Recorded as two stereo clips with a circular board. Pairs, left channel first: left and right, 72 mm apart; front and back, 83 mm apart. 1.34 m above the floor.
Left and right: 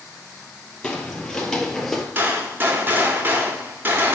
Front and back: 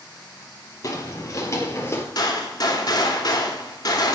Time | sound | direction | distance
0.8 | footsteps | 20° left | 1.8 m
2.1 | a gunshot | 30° right | 1.8 m